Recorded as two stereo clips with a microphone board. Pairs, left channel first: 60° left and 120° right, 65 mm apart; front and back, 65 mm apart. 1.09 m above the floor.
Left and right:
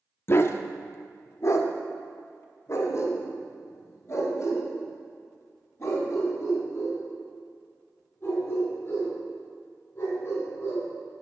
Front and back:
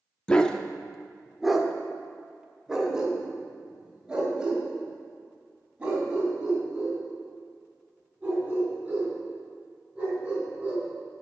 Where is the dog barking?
65° left, 0.6 m; by 10.8 s 110° left, 6 m.